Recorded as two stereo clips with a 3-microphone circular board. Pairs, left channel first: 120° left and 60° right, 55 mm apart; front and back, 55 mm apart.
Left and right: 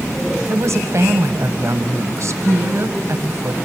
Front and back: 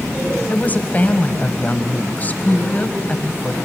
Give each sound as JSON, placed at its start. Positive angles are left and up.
{"t": 0.5, "sound": "a woman speaking", "azimuth_deg": -55, "distance_m": 1.6}